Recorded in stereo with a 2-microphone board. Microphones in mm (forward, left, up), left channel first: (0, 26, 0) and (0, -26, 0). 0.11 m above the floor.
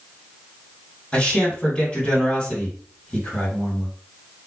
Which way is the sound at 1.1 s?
20° left (ahead or behind).